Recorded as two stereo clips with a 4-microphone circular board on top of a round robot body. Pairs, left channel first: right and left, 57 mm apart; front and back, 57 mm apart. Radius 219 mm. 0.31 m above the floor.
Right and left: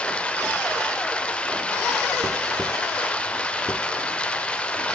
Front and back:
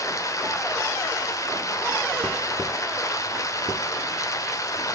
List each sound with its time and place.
0.0 s running water: 20° right, 1.6 m